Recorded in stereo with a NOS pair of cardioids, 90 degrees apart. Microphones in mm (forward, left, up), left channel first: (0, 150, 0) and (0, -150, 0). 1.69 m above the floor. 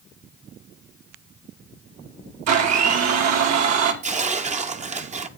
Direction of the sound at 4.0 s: 25° right.